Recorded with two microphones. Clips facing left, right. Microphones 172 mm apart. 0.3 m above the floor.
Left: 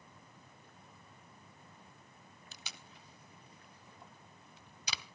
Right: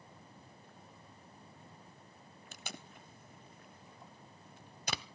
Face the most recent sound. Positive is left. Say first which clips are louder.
# right 8 dB
turn(degrees=-50)  # may be behind; listen again after turning